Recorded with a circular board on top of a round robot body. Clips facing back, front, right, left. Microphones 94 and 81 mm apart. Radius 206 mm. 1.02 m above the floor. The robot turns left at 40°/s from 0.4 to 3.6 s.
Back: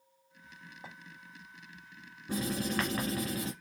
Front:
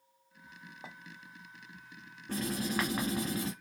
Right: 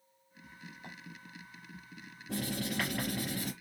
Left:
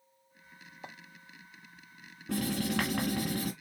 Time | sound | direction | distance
0.8 | a clink | 75° left | 0.9 m
2.3 | writing | 100° left | 1.2 m